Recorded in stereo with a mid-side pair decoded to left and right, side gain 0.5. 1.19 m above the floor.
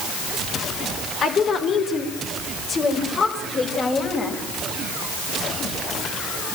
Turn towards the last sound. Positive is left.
turn(degrees=40)